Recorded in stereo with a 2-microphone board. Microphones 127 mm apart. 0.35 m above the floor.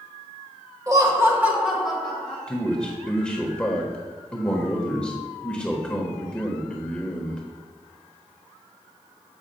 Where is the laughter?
30° right (ahead or behind), 1.3 m; by 2.4 s 10° left (ahead or behind), 1.8 m.